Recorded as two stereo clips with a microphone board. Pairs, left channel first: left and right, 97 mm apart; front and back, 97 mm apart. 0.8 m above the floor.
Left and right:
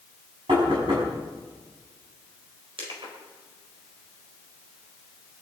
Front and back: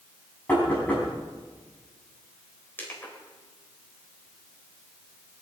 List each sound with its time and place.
0.5 s knocking: 70° right, 6.5 m
2.8 s crushing: 70° right, 4 m